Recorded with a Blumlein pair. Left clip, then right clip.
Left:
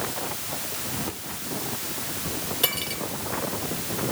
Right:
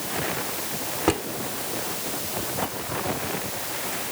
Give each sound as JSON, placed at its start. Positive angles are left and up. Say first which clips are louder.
{"t": 1.1, "sound": "a drawer", "louder": "right 12 dB", "azimuth_deg": -35}
{"t": 2.6, "sound": "cutlery clinking", "louder": "left 3 dB", "azimuth_deg": 50}